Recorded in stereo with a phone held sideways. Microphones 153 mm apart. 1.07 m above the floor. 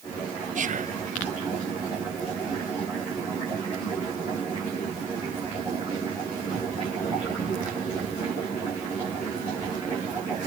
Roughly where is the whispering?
Right.